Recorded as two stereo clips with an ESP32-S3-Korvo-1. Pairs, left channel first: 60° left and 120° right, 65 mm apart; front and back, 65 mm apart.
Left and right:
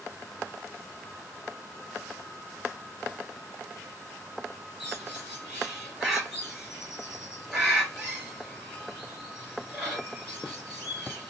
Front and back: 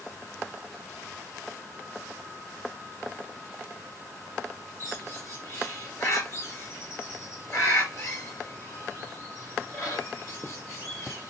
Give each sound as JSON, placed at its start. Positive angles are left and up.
{"t": 4.8, "sound": "a bird", "azimuth_deg": -40, "distance_m": 3.0}